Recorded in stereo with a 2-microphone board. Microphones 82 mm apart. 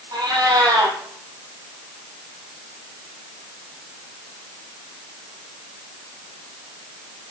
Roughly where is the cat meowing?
Right.